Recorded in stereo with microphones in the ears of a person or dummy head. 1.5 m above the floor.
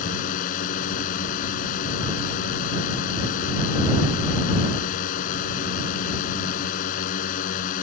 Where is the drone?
55° left (ahead or behind).